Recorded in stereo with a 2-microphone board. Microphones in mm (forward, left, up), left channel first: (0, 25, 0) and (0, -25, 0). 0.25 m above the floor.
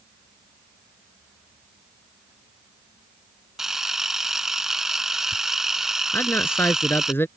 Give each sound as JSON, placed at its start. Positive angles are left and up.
{"t": 3.6, "sound": "a camera shutter", "side_deg": -10}
{"t": 6.1, "sound": "a man speaking", "side_deg": 55}